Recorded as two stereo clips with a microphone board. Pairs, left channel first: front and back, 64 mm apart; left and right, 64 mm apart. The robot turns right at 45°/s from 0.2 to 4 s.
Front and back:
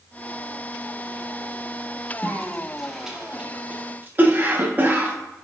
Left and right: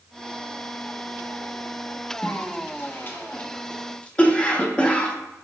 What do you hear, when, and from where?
2.2 s a cough: 65° left, 0.7 m; by 5.2 s 145° left, 0.7 m